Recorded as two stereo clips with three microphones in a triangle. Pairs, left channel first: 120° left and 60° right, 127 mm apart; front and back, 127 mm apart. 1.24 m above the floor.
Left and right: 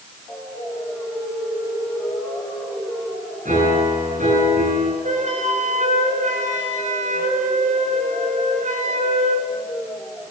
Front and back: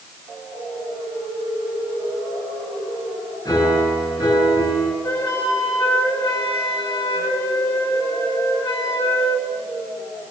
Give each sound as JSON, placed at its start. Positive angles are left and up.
{"t": 3.5, "sound": "a piano", "azimuth_deg": -65, "distance_m": 7.0}
{"t": 5.0, "sound": "a flute", "azimuth_deg": -70, "distance_m": 6.5}